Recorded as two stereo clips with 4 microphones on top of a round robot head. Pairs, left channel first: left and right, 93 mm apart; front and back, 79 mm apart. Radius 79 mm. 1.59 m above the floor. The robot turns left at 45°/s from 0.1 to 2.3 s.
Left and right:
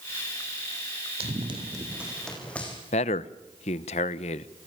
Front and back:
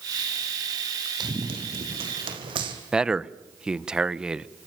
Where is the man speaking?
100° left, 1.1 m.